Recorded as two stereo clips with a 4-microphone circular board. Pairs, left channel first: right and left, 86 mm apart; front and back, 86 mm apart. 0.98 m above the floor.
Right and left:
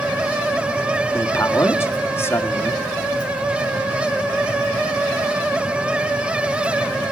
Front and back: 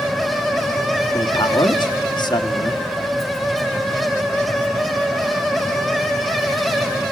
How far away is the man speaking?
About 2 m.